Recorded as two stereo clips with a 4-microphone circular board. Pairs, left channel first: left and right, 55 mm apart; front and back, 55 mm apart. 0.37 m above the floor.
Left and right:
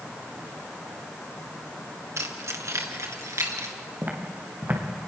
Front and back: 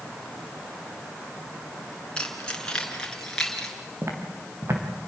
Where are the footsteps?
140° right, 5 m.